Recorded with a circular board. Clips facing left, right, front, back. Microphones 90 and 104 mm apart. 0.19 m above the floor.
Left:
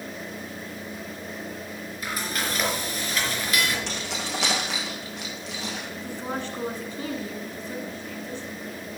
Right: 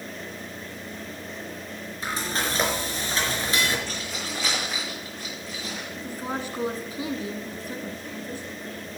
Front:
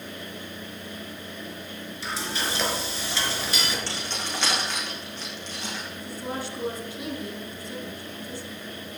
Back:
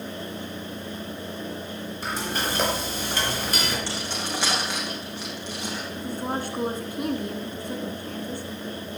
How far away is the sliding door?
I don't hear a sliding door.